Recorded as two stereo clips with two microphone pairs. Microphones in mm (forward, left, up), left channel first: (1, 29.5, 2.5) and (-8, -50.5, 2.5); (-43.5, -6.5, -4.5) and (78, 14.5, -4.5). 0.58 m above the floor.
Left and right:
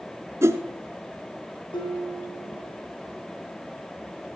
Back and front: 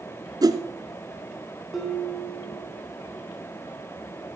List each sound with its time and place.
0.4 s a whoosh: 45° right, 1.0 m
1.7 s dishes clattering: 100° left, 4 m